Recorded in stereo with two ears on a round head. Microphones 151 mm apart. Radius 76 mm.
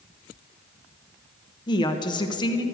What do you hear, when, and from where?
1.7 s a woman speaking: 25° left (ahead or behind), 1.1 m